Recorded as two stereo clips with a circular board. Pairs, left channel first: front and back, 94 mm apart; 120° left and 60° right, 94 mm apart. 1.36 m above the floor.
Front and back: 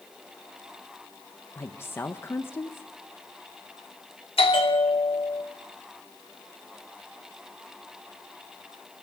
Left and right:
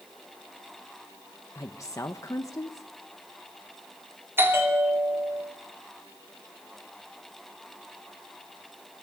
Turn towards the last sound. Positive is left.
turn(degrees=5)